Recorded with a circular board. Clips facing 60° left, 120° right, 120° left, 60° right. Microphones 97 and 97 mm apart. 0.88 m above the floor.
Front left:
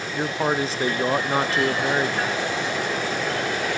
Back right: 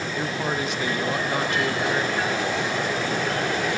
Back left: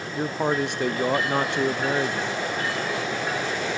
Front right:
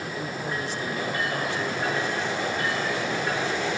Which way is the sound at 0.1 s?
115° left.